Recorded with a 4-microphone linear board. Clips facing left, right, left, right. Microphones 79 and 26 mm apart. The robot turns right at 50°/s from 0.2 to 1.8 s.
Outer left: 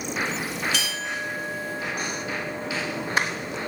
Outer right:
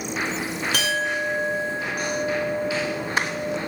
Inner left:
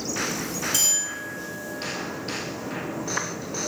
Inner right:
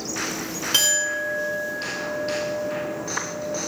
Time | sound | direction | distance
0.7 | a clink | 130° right | 0.6 m